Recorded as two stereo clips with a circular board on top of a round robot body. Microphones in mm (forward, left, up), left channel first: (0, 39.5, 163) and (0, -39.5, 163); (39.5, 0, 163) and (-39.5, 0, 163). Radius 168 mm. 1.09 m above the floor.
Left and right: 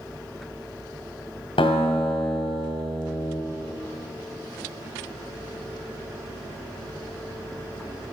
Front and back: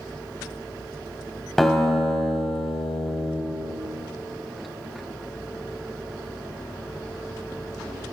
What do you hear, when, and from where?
1.6 s a guitar: 85° left, 1.8 m